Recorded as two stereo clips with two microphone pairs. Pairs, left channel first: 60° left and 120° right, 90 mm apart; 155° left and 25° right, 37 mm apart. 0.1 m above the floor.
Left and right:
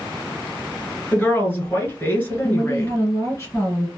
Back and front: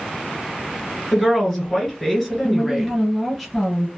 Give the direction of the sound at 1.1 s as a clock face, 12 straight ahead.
10 o'clock.